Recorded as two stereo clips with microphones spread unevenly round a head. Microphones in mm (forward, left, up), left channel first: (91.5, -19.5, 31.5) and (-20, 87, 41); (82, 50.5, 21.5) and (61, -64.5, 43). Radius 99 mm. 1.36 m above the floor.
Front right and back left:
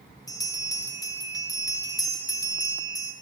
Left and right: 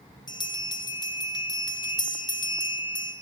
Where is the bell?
25° left, 1.2 m.